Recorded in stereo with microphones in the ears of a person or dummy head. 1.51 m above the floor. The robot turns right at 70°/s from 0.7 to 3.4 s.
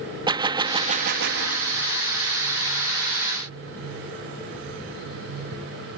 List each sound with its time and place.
0.3 s a gunshot: 160° right; by 1.9 s 80° right